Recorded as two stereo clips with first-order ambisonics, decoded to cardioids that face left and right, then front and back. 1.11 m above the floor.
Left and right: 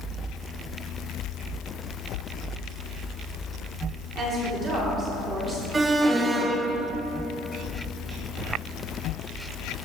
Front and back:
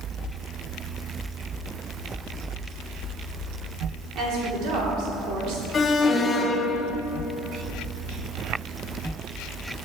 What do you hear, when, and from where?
4.2 s a woman speaking: 145° right, 3.5 m; by 5.6 s 165° right, 3.5 m
5.7 s an alarm: 35° right, 0.6 m